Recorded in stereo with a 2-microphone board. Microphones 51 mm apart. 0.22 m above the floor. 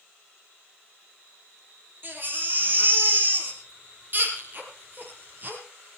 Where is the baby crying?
40° right (ahead or behind), 5 m.